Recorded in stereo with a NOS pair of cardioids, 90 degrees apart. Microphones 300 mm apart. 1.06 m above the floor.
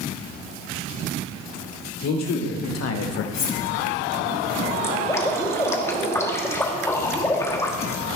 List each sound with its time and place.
2.0 s a man speaking: 60° left, 2.5 m; by 3.2 s 50° left, 0.7 m
3.3 s cutlery clinking: 60° left, 2.5 m
4.8 s dripping: 10° left, 1.2 m